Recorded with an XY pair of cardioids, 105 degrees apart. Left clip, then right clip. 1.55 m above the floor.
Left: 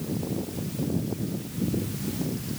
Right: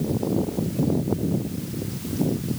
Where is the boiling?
I don't hear boiling.